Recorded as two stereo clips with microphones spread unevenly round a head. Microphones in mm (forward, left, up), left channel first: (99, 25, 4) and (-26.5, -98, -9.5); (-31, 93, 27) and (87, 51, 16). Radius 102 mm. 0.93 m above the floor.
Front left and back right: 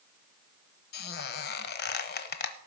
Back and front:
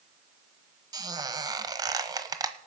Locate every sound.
0.9 s a squeak: 40° left, 1.3 m